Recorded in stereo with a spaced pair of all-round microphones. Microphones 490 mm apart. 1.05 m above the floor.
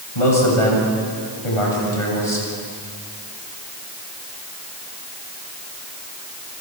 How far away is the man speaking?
About 7.5 m.